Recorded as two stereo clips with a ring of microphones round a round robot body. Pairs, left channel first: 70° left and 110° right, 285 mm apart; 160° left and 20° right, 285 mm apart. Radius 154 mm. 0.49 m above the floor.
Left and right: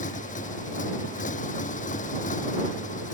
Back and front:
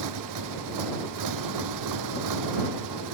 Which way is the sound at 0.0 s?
Straight ahead.